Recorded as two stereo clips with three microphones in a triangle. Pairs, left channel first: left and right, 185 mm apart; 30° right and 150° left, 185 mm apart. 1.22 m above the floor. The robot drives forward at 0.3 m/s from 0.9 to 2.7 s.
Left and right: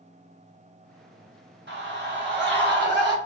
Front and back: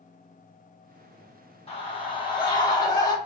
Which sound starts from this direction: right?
A scream, at 1.7 s.